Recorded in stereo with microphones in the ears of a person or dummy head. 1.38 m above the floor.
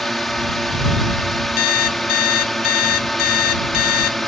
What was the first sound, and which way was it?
A drone, centre (ahead or behind).